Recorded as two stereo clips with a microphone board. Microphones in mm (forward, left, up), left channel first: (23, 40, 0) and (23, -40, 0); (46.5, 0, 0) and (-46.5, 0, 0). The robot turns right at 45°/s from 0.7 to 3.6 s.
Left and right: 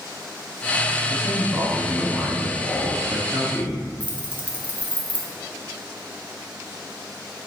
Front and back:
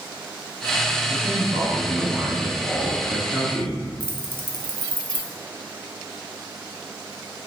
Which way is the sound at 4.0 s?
140° right.